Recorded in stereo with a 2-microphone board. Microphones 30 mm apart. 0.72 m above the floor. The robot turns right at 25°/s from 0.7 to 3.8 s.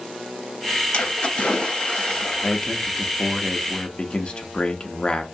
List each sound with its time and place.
0.9 s a splash: 90° left, 0.6 m; by 2.6 s 130° left, 0.6 m
2.4 s a man speaking: 55° left, 0.5 m; by 5.3 s 90° left, 0.5 m